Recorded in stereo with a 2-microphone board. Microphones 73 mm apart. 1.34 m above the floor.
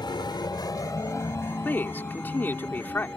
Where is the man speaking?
30° left (ahead or behind).